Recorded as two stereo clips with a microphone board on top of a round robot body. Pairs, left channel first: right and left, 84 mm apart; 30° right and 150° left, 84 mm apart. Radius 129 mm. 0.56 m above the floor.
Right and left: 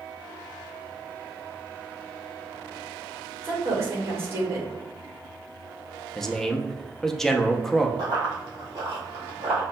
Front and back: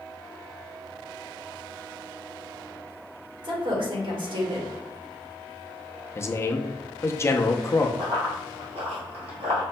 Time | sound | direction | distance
3.4 | a woman speaking | 150° left | 1.6 m
6.2 | a man speaking | 5° right | 0.6 m
8.0 | running footsteps | 125° left | 1.3 m